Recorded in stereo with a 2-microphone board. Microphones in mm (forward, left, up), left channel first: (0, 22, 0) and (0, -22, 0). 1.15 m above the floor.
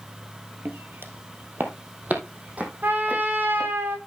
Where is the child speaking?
No child speaking in this recording.